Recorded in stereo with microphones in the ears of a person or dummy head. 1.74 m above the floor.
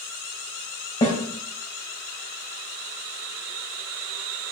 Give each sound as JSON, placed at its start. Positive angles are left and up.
{"t": 1.0, "sound": "a snare drum", "side_deg": 20, "distance_m": 3.0}